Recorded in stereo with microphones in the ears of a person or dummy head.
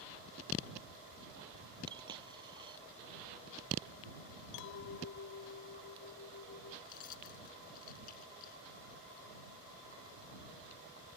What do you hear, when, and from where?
1.9 s a dropped coin: 30° right (ahead or behind)
4.5 s a clink: 70° left (ahead or behind)
6.8 s keys jangling: 45° left (ahead or behind)